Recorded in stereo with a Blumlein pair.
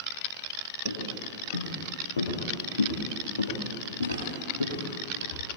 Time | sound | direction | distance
0.8 | footsteps | 65° left | 9.5 m